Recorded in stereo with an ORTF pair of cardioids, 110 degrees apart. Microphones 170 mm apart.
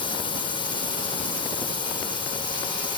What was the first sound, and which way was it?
A drone, 30° left.